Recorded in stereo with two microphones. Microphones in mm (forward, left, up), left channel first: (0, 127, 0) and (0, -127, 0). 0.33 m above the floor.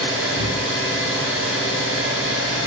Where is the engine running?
55° right (ahead or behind), 1.1 m.